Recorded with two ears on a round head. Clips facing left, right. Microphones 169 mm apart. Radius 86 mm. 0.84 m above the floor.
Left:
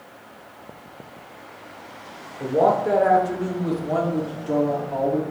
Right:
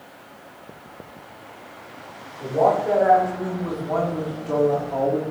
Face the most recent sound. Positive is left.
turn(degrees=-5)  # may be behind; listen again after turning